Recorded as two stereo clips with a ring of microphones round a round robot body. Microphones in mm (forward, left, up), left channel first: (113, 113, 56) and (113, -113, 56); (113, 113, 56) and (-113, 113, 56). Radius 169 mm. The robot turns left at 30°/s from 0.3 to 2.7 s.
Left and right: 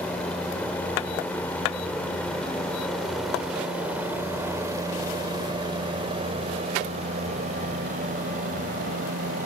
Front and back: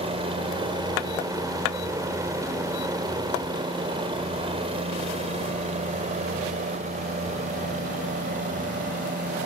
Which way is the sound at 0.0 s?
165° left.